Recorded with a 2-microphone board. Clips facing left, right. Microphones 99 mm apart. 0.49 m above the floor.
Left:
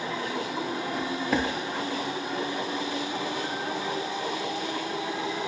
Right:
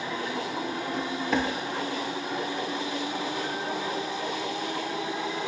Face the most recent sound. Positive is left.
turn(degrees=5)  # may be behind; listen again after turning